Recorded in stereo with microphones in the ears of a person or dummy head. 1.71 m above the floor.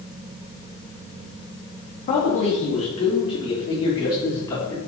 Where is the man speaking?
40° left (ahead or behind), 3.5 m; by 4.8 s 20° left (ahead or behind), 5 m.